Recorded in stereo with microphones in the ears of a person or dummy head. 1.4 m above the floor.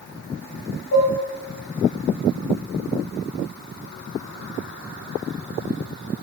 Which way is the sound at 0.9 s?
60° left (ahead or behind).